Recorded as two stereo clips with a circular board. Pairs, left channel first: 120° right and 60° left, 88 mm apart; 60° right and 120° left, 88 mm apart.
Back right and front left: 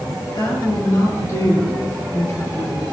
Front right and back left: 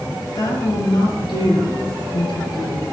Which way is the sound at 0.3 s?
85° right.